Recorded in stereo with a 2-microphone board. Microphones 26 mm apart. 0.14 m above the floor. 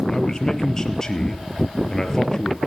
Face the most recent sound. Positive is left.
turn(degrees=20)  # may be behind; listen again after turning